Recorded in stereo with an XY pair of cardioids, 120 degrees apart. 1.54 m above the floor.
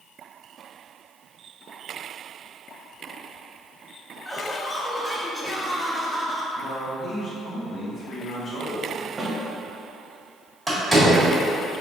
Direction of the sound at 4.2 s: 10° left.